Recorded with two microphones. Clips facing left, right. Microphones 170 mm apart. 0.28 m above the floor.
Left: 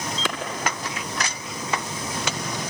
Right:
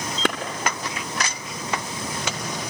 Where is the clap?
60° right (ahead or behind), 2 m.